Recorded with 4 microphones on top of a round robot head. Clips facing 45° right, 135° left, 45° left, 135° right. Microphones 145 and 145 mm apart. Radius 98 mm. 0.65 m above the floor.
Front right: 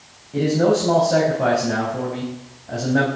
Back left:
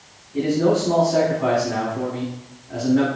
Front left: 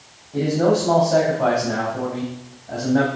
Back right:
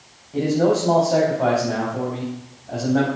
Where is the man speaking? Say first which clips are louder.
Front right 1 dB, even; 50° right, 4 m.